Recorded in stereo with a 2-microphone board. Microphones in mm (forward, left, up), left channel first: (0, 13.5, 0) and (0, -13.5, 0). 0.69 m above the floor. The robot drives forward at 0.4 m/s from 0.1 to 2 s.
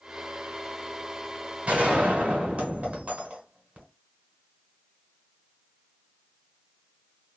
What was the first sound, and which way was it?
A gunshot, 65° right (ahead or behind).